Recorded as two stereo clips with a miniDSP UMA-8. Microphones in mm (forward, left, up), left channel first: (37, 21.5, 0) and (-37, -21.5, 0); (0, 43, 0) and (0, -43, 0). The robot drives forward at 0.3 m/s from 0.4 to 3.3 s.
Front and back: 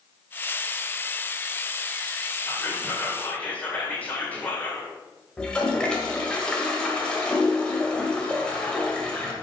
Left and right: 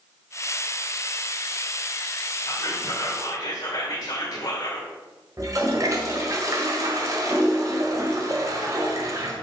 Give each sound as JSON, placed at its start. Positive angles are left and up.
{"t": 2.5, "sound": "whispering", "azimuth_deg": 85, "distance_m": 1.7}
{"t": 5.4, "sound": "a toilet flushing", "azimuth_deg": -45, "distance_m": 1.6}